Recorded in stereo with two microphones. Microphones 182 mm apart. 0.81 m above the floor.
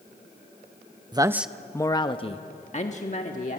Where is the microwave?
No microwave in this recording.